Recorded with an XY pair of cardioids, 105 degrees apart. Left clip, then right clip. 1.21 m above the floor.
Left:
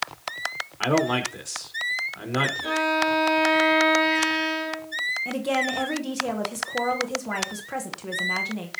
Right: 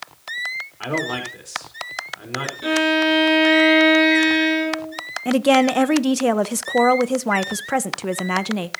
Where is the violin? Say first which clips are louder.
Right 9 dB; 65° right, 5.5 m.